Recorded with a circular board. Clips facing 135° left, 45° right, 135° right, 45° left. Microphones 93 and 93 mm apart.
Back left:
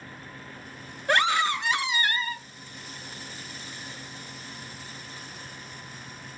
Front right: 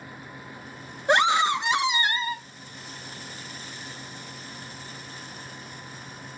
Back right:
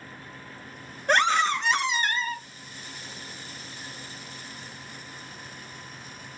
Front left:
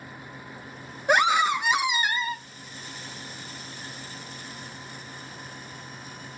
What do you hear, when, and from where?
1.1 s a scream: 20° right, 0.7 m